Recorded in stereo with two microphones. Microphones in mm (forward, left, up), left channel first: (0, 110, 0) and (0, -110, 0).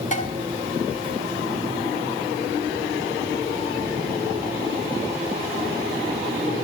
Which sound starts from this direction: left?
Dishes clattering, at 0.1 s.